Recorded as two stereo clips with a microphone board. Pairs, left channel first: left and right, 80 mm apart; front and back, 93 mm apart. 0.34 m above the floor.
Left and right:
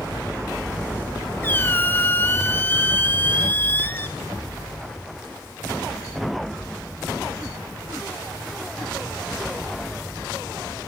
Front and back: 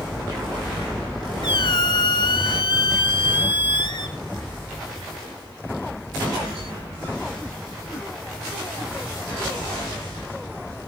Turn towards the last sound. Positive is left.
turn(degrees=25)